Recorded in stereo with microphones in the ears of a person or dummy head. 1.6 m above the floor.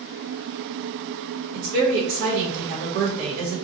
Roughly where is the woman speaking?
Right.